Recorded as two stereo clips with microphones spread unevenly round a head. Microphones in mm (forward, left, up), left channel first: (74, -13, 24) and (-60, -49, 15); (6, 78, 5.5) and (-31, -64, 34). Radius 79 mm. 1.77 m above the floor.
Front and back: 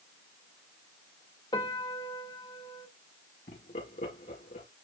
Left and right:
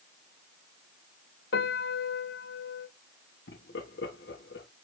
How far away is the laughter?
About 3.5 m.